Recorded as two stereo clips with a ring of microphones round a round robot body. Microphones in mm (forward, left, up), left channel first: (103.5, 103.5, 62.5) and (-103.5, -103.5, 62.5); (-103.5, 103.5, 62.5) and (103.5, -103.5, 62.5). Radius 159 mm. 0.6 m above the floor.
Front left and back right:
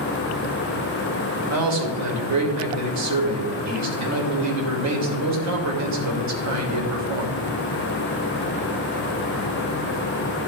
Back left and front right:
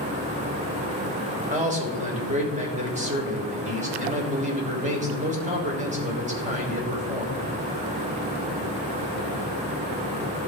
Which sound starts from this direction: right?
A man speaking, at 1.5 s.